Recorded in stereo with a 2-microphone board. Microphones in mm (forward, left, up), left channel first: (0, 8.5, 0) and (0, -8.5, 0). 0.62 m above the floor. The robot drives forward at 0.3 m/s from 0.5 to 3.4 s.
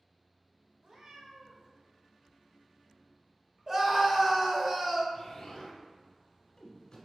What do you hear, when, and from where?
0.8 s a cat meowing: 60° right (ahead or behind), 0.9 m; by 1.7 s 50° right (ahead or behind), 1.0 m
3.7 s a scream: 25° right (ahead or behind), 0.8 m
5.1 s an explosion: 35° left (ahead or behind), 1.0 m